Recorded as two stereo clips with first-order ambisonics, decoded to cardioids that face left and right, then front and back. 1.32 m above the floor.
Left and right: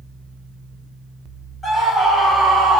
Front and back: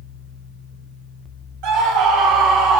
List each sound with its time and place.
1.6 s a scream: 170° left, 1.6 m; by 2.8 s 160° right, 1.5 m